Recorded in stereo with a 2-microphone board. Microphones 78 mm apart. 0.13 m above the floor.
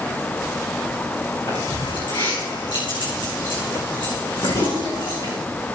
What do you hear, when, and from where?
1.5 s keys jangling: 75° left (ahead or behind), 6 m